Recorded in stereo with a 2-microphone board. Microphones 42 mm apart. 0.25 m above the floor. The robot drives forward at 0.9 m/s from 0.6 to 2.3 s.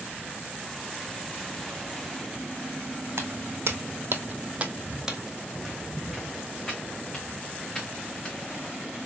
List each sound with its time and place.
3.2 s footsteps: 75° right (ahead or behind), 0.9 m; by 8.7 s 25° left (ahead or behind), 2.5 m